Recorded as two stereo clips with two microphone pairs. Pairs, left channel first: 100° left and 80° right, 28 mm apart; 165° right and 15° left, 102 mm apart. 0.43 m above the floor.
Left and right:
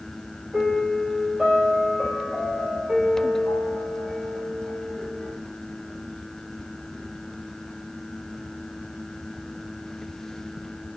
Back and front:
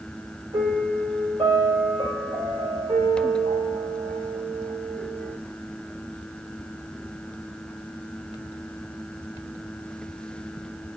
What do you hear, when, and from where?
0.5 s a piano: 10° right, 1.6 m